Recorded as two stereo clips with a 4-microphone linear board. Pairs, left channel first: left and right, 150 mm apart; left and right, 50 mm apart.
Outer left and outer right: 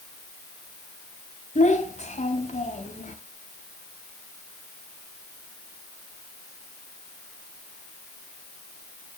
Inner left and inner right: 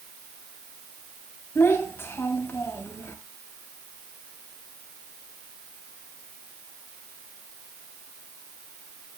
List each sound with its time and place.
1.6 s a child speaking: 50° left (ahead or behind), 2.5 m